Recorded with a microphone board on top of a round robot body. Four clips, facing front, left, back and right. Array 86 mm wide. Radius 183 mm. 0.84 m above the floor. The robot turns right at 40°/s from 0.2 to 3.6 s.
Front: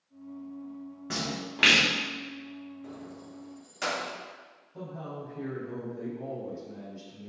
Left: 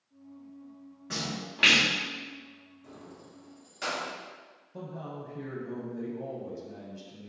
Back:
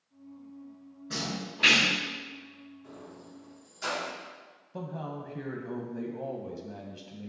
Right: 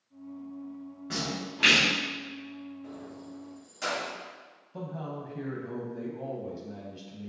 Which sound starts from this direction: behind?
A man speaking, at 4.7 s.